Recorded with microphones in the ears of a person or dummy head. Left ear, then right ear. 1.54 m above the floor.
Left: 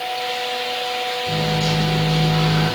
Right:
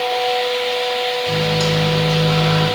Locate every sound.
1.3 s a microwave: 65° right (ahead or behind), 3 m